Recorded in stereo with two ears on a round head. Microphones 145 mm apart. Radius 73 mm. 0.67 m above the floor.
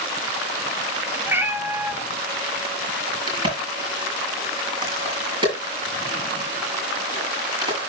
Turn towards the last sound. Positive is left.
turn(degrees=-30)  # may be behind; listen again after turning